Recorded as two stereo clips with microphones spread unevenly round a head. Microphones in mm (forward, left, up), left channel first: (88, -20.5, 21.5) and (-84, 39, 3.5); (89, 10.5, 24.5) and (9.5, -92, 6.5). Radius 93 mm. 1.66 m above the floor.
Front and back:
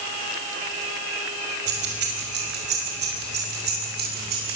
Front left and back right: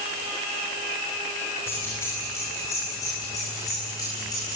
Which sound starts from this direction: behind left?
Keys jangling, at 1.7 s.